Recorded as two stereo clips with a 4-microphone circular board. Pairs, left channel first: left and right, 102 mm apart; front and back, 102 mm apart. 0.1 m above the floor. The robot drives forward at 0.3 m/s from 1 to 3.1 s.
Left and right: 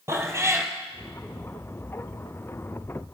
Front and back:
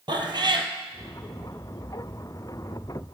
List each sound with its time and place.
0.1 s a cat meowing: 150° right, 1.3 m